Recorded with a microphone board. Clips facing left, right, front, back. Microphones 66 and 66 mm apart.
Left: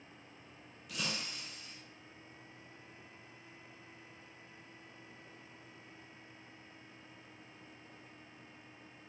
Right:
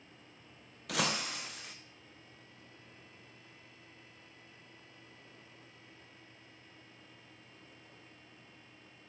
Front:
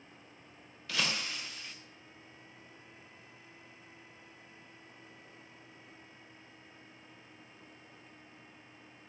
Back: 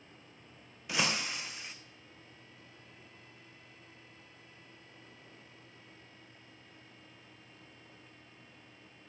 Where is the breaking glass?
105° right, 0.9 m.